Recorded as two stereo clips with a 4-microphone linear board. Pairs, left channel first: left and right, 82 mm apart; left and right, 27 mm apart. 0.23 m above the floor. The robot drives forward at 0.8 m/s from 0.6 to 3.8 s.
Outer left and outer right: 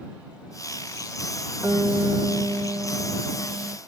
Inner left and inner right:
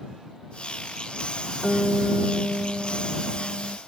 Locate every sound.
1.6 s a guitar: 30° right (ahead or behind); by 3.8 s 55° right (ahead or behind)